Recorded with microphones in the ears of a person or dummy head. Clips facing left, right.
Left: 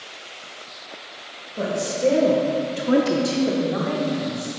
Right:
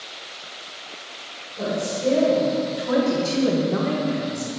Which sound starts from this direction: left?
A woman speaking, at 1.6 s.